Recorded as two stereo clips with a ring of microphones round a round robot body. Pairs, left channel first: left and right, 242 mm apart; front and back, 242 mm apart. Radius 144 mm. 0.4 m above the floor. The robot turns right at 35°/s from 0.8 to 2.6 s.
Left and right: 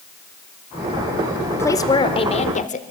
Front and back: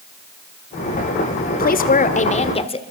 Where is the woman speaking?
15° left, 1.6 m; by 2.8 s 50° left, 1.6 m.